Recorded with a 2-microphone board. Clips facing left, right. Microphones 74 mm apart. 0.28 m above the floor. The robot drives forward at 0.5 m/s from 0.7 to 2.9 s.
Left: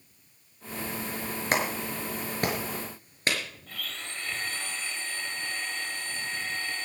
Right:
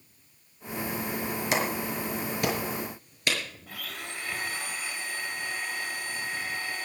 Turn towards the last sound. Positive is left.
turn(degrees=-10)  # may be behind; listen again after turning